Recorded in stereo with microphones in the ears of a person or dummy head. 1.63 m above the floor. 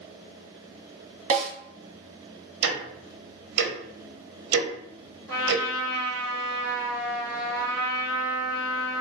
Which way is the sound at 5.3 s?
10° left (ahead or behind).